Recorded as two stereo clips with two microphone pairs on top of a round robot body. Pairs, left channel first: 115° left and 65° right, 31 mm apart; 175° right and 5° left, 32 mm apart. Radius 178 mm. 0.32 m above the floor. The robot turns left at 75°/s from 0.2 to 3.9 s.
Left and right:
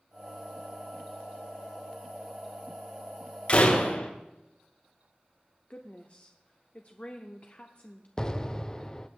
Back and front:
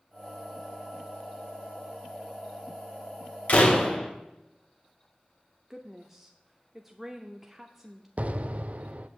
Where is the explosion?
50° left, 0.5 m.